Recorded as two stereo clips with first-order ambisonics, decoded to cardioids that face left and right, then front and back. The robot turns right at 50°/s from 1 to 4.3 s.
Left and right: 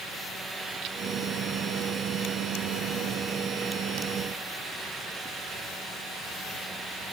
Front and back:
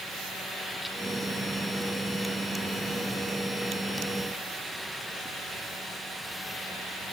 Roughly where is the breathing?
No breathing in this recording.